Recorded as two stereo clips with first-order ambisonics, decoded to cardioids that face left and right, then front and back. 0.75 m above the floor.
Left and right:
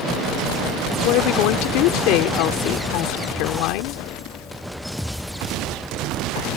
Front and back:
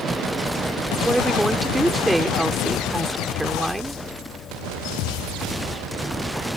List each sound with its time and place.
1.0 s a woman speaking: 95° left